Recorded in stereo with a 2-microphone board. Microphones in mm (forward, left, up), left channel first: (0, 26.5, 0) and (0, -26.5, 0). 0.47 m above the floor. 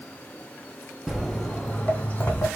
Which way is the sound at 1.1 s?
5° right (ahead or behind).